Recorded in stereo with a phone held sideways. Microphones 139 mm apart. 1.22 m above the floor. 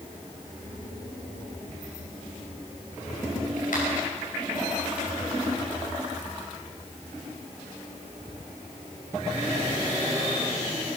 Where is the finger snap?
85° left, 5 m.